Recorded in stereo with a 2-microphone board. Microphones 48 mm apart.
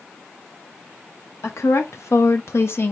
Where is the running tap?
I don't hear a running tap.